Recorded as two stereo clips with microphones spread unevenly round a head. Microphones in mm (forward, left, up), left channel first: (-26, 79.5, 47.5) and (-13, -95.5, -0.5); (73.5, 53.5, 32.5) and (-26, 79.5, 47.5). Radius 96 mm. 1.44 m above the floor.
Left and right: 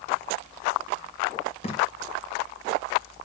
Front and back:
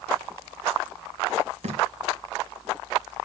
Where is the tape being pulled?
155° left, 3 m.